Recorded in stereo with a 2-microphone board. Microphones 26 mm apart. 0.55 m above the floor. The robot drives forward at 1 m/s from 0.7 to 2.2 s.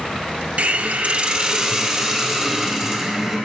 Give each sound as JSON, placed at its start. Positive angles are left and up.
{"t": 0.6, "sound": "a hiss", "side_deg": -55, "distance_m": 0.5}